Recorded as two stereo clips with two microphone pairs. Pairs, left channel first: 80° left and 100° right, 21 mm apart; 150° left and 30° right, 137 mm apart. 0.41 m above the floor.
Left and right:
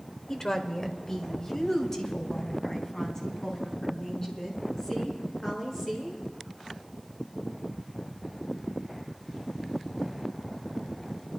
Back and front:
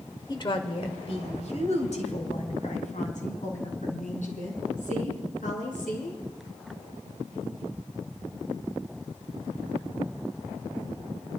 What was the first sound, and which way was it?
A woman speaking, 120° left.